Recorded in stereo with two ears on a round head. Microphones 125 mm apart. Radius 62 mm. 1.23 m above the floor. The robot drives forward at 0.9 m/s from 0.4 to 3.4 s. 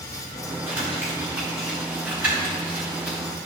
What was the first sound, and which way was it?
Crumpling, 20° right (ahead or behind).